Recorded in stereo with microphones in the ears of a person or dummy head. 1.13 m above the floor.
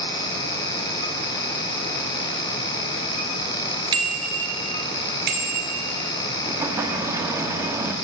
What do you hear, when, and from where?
3.9 s a bicycle bell: 20° right (ahead or behind), 2 m; by 5.8 s 55° right (ahead or behind), 3 m
6.4 s an explosion: 20° right (ahead or behind), 0.9 m